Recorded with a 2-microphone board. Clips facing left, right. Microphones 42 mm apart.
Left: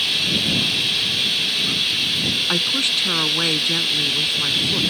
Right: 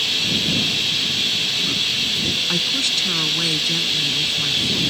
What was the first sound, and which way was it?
Running water, 5° left (ahead or behind).